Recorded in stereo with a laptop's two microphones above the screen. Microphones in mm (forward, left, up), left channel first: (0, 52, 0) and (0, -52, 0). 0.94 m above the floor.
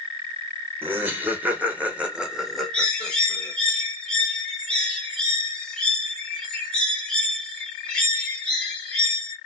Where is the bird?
10° left (ahead or behind), 1.2 m.